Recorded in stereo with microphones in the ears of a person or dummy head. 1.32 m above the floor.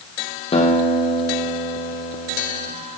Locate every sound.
0.5 s a guitar: 30° left (ahead or behind), 1.4 m